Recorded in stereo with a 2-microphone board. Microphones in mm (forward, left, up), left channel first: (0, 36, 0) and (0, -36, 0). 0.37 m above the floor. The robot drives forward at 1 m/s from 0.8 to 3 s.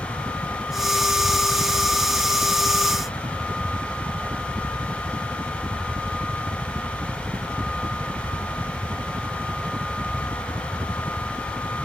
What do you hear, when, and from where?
0.0 s a helicopter: 70° right (ahead or behind)